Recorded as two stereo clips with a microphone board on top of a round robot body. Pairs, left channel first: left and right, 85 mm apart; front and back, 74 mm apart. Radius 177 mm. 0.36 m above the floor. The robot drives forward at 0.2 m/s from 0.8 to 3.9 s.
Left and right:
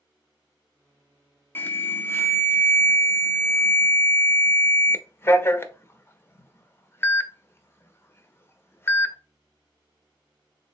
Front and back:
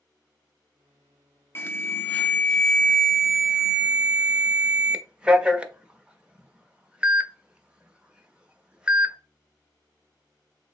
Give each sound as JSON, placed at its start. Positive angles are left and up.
{"t": 1.6, "sound": "an alarm", "azimuth_deg": 35, "distance_m": 0.8}